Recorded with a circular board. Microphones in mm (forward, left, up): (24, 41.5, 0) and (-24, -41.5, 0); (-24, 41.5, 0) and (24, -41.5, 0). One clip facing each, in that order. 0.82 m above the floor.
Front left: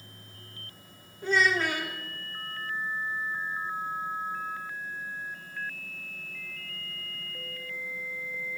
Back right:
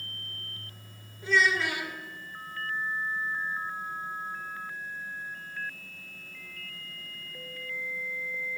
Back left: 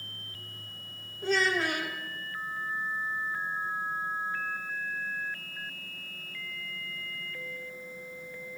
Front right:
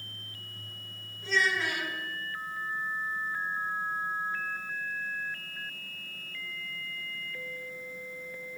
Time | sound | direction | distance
1.2 | a child speaking | 95° left | 1.6 m